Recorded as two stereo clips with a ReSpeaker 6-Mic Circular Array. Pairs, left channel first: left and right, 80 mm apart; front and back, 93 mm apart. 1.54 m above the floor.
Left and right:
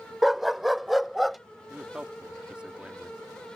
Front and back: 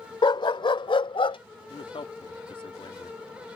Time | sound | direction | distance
0.2 | a dog barking | straight ahead | ?
1.7 | a man speaking | 15° right | ?